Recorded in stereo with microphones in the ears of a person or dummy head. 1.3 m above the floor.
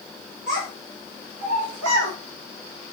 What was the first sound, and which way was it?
A child speaking, 35° right (ahead or behind).